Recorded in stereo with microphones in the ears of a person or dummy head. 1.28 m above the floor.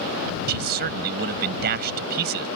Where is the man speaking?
50° right (ahead or behind).